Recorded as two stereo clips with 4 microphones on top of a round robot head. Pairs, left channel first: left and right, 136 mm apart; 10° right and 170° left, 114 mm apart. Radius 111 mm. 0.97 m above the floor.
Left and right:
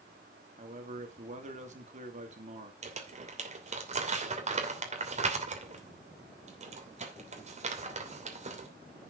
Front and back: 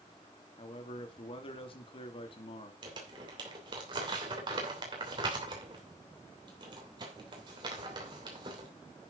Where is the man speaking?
55° right, 2.5 m.